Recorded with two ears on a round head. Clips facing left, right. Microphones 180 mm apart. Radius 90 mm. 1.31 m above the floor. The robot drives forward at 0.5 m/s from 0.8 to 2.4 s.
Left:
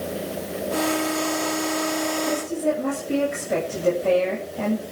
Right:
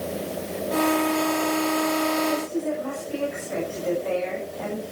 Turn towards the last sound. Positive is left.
turn(degrees=75)  # may be behind; listen again after turning